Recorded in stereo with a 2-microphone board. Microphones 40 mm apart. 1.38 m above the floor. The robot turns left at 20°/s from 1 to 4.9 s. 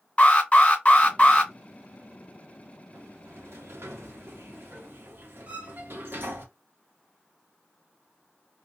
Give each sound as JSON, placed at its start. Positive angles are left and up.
{"t": 0.2, "sound": "an alarm", "side_deg": 30, "distance_m": 1.7}
{"t": 2.9, "sound": "a sliding door", "azimuth_deg": -80, "distance_m": 0.7}
{"t": 5.5, "sound": "a violin", "side_deg": -35, "distance_m": 0.8}